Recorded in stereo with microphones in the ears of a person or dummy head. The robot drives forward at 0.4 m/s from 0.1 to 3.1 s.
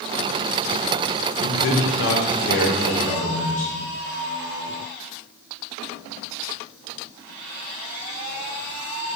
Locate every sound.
1.4 s a man speaking: 60° left (ahead or behind), 0.6 m; by 3.7 s 40° left (ahead or behind), 0.8 m